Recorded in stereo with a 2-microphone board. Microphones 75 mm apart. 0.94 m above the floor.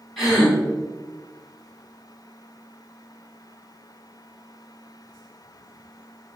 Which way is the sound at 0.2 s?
Centre (ahead or behind).